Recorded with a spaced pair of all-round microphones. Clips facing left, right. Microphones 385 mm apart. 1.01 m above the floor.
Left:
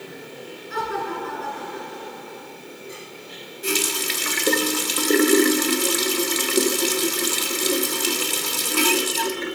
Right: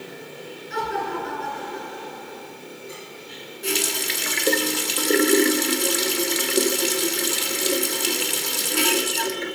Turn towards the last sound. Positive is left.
turn(degrees=15)  # may be behind; listen again after turning